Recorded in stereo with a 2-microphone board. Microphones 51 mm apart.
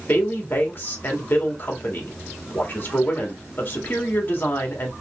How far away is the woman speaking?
About 1.9 m.